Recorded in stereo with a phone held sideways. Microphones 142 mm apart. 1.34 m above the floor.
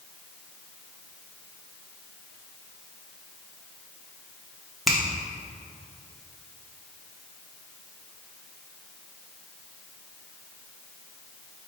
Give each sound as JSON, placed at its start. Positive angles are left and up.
{"t": 4.9, "sound": "a finger snap", "side_deg": 0, "distance_m": 0.5}